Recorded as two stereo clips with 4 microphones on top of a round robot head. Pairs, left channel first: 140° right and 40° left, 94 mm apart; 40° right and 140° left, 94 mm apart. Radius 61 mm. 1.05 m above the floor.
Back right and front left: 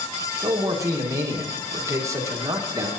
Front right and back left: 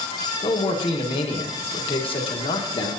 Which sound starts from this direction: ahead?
A man speaking, at 0.4 s.